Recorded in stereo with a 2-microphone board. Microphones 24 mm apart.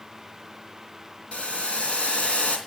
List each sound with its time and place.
1.3 s boiling: 65° left (ahead or behind), 3 m